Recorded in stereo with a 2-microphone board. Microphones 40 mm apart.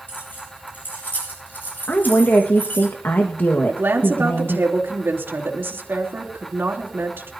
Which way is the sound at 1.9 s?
55° left (ahead or behind).